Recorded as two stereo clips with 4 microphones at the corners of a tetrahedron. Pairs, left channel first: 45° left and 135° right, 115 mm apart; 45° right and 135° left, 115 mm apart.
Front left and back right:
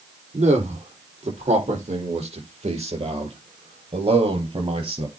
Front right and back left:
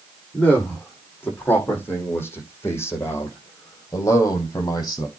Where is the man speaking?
120° right, 7 m; by 5.1 s 100° right, 4.5 m.